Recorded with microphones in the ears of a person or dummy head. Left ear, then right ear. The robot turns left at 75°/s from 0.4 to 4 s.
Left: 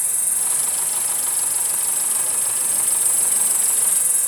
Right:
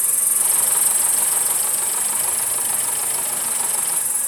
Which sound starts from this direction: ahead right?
An insect, at 0.0 s.